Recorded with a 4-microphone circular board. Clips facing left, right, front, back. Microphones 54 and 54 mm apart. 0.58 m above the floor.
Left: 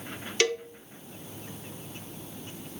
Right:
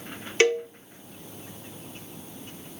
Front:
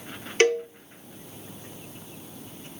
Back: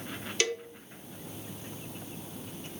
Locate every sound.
0.4 s a cowbell: 35° right, 0.5 m